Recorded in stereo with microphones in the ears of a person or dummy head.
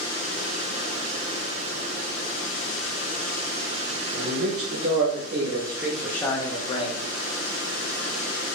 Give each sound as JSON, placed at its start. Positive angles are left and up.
{"t": 4.1, "sound": "a man speaking", "side_deg": -70, "distance_m": 2.0}